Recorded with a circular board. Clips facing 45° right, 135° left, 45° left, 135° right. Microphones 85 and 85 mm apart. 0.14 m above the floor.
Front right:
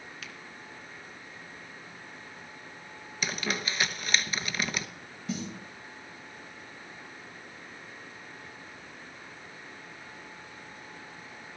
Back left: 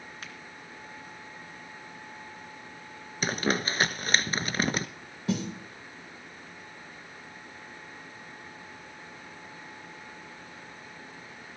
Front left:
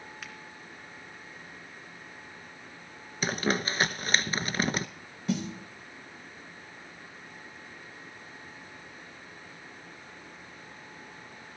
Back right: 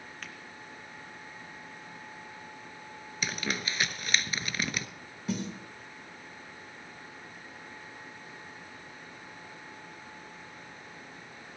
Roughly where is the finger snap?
Behind left.